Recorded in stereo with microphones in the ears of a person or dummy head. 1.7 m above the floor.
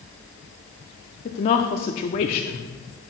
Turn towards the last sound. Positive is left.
turn(degrees=30)  # may be behind; listen again after turning